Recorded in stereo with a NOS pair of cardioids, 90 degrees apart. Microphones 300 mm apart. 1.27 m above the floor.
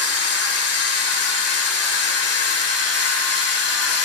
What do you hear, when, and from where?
0.0 s a machine running: 60° left, 2.5 m